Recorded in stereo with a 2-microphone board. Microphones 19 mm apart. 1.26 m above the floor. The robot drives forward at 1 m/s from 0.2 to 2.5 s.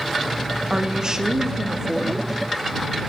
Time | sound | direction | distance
0.7 | a woman speaking | 55° right (ahead or behind) | 1.9 m